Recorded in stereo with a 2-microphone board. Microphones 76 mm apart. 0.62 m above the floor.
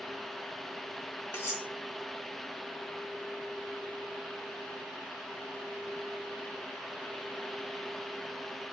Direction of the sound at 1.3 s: 30° left (ahead or behind).